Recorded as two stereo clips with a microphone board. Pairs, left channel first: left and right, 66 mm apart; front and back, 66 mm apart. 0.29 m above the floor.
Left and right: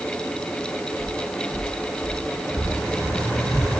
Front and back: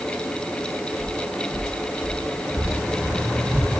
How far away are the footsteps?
About 8 m.